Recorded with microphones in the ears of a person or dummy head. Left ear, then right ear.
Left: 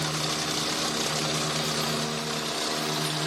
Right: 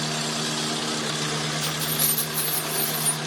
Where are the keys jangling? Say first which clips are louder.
Right 1 dB; 50° right (ahead or behind); by 3.2 s 40° right (ahead or behind).